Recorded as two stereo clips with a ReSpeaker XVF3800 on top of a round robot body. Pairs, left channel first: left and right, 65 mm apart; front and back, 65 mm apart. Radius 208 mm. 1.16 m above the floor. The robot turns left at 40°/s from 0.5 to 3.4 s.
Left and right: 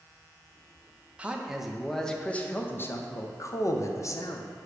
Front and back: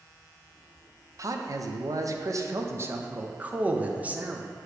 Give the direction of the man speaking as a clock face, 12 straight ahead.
5 o'clock.